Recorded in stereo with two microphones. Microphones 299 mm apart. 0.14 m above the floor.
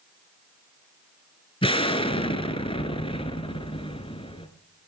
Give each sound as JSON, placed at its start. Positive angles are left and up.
{"t": 1.6, "sound": "an explosion", "side_deg": 20, "distance_m": 1.1}